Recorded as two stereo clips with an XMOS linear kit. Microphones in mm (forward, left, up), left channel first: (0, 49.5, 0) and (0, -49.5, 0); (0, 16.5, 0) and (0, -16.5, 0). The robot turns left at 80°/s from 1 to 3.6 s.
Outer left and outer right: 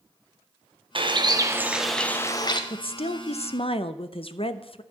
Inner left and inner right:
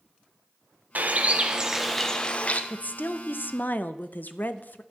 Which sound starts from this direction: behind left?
A woman speaking, at 2.7 s.